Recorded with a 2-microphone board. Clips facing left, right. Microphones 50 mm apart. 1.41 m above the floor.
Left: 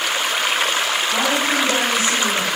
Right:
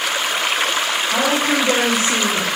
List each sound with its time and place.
1.1 s a woman speaking: 60° right (ahead or behind), 3.5 m; by 2.5 s 50° right (ahead or behind), 2 m